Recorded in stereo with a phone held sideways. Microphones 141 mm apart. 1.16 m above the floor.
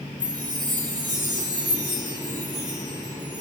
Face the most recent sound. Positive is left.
turn(degrees=-35)  # may be behind; listen again after turning